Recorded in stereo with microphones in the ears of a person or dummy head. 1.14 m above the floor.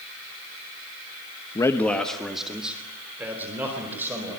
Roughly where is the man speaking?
Centre.